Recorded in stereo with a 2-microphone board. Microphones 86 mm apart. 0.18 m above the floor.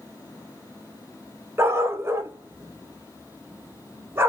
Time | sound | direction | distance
1.6 | a dog barking | 30° right (ahead or behind) | 0.6 m